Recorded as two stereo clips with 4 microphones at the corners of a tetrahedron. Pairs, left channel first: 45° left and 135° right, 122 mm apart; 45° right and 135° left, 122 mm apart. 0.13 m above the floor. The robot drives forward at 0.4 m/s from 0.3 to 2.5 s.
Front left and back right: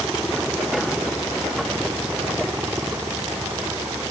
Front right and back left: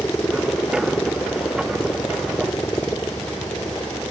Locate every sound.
0.0 s a helicopter: 40° right; by 4.1 s 85° right